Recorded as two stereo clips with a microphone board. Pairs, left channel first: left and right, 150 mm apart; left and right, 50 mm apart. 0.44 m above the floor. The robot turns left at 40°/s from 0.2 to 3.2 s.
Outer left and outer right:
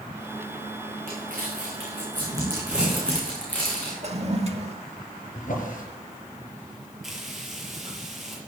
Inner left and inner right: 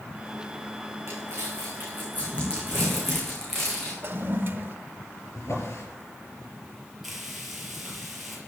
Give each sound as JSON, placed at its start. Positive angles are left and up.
{"t": 1.1, "sound": "crumpling", "side_deg": -75, "distance_m": 8.0}
{"t": 4.0, "sound": "a toilet flushing", "side_deg": -45, "distance_m": 1.1}
{"t": 5.3, "sound": "a drawer", "side_deg": 60, "distance_m": 4.5}
{"t": 7.0, "sound": "frying", "side_deg": 0, "distance_m": 5.0}